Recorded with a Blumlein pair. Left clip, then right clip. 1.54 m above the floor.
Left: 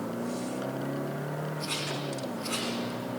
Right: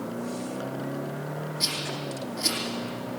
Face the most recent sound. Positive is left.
turn(degrees=-55)